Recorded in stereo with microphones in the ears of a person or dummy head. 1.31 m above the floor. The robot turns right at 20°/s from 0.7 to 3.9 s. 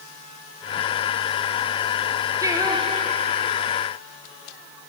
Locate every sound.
2.4 s singing: 15° right (ahead or behind), 0.8 m; by 3.9 s 35° right (ahead or behind), 0.8 m